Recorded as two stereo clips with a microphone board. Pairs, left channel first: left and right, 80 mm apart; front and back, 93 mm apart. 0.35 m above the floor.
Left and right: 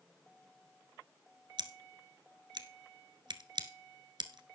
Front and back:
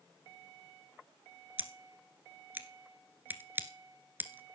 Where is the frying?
I don't hear frying.